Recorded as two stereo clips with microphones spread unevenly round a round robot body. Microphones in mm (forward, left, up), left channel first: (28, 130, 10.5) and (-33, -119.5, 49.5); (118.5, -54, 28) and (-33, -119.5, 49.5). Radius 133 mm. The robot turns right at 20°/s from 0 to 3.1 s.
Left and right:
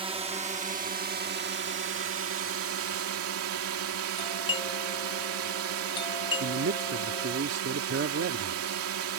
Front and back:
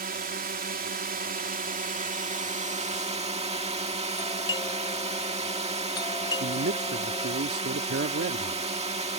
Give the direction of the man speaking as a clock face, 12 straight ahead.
5 o'clock.